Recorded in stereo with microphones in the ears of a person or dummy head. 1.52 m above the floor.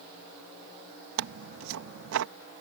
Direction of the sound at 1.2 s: 80° right.